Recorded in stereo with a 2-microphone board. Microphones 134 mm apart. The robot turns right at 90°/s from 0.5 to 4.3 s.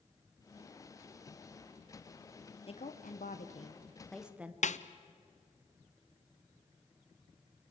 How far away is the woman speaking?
About 1.6 m.